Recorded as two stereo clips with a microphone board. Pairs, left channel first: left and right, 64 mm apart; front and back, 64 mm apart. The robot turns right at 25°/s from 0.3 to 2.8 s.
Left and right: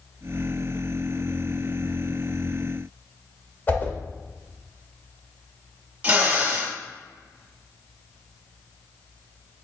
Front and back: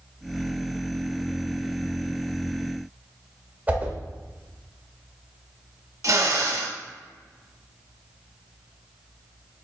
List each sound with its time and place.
3.7 s a whoosh: 135° left, 0.8 m
6.0 s a drill: 155° right, 1.0 m